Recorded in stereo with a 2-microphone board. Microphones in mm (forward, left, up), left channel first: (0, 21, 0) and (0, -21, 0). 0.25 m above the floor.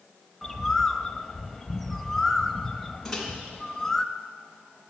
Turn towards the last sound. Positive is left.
turn(degrees=5)  # may be behind; listen again after turning